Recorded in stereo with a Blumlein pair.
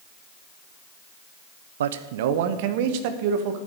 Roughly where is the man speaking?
Ahead right.